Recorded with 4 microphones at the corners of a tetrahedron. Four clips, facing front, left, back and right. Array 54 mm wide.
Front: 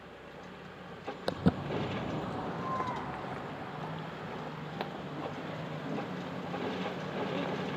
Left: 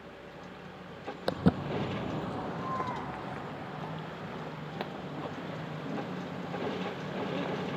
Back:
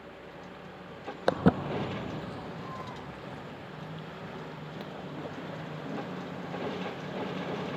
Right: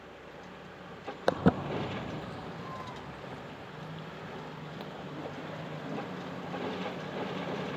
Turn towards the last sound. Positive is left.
turn(degrees=45)